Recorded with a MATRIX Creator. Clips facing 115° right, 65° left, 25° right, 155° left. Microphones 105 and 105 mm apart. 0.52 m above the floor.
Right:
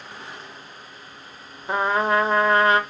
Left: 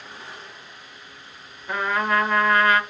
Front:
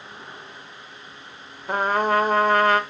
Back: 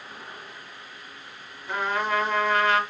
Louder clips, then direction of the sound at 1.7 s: Right 2 dB, front 5 dB; 55° right.